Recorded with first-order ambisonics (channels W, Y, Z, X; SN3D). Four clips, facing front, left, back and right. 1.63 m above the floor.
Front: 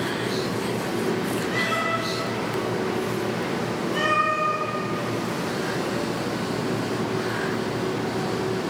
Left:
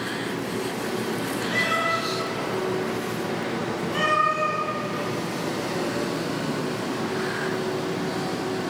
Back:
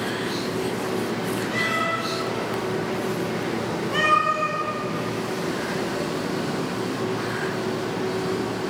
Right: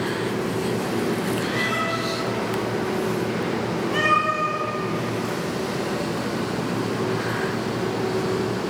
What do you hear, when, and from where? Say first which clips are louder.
1.5 s a cat meowing: left 1 dB, back 1 dB; 110° left, 1.5 m; by 4.6 s 145° right, 1.9 m